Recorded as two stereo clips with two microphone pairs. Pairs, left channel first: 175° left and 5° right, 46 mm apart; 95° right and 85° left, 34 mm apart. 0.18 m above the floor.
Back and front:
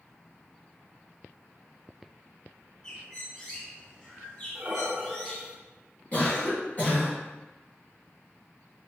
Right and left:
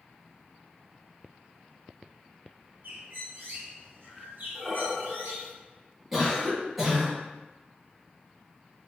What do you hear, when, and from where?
2.8 s a bird: 105° left, 1.6 m
4.5 s breathing: 10° right, 0.8 m
6.1 s a cough: 160° left, 1.6 m